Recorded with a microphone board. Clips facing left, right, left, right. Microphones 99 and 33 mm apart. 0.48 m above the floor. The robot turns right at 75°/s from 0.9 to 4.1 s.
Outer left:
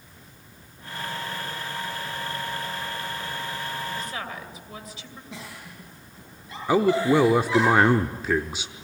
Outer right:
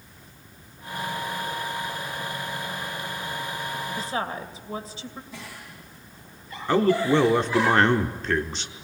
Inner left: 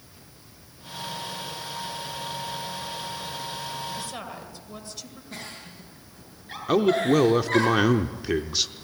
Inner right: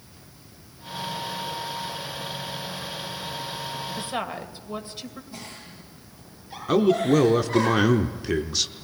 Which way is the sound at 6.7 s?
10° left (ahead or behind).